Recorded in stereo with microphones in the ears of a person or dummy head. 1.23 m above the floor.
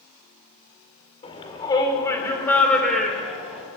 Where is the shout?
30° left (ahead or behind), 4.5 m; by 3.6 s 5° right (ahead or behind), 5 m.